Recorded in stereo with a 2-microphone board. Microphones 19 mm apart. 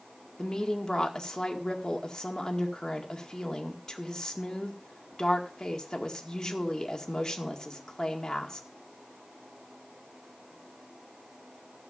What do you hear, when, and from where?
0.4 s a woman speaking: 30° left (ahead or behind), 2.0 m